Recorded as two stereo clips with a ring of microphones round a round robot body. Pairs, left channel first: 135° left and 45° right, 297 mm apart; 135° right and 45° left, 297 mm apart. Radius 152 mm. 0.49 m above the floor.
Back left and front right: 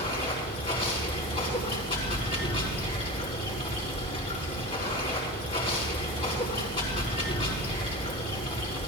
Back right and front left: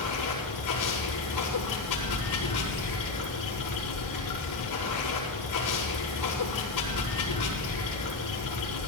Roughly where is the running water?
Behind right.